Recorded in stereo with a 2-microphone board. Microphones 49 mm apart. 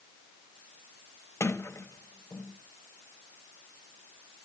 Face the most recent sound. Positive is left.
turn(degrees=80)